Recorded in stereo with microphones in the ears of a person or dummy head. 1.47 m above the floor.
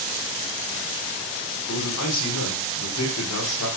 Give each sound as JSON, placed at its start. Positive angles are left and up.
{"t": 1.7, "sound": "a man speaking", "side_deg": 90, "distance_m": 5.5}